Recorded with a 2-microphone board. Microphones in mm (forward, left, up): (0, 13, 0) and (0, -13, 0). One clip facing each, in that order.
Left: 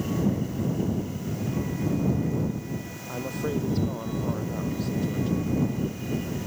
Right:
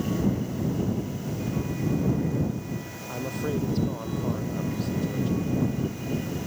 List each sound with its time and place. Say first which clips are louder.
3.1 s a woman speaking: even; 5° right (ahead or behind)